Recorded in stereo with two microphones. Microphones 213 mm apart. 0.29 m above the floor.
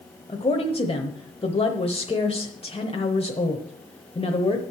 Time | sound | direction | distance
0.3 | a woman speaking | 25° left (ahead or behind) | 1.0 m